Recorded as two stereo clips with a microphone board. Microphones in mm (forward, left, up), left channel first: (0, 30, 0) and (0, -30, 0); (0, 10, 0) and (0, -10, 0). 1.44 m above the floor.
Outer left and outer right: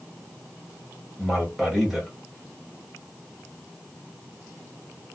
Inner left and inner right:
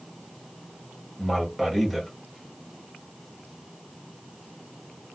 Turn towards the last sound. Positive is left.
turn(degrees=-5)  # may be behind; listen again after turning